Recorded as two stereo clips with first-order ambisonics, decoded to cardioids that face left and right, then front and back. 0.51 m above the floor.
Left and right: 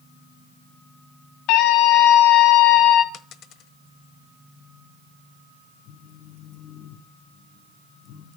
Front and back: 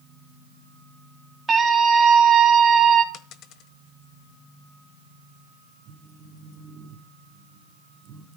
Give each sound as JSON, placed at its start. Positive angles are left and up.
{"t": 1.5, "sound": "a scream", "azimuth_deg": 105, "distance_m": 3.5}
{"t": 3.1, "sound": "a dropped coin", "azimuth_deg": 40, "distance_m": 1.1}
{"t": 5.8, "sound": "a phone buzzing", "azimuth_deg": 120, "distance_m": 4.0}